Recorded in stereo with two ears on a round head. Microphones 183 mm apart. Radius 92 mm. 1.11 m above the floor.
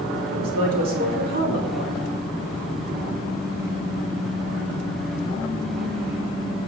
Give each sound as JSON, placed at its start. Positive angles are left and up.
{"t": 0.3, "sound": "a woman speaking", "side_deg": -50, "distance_m": 4.0}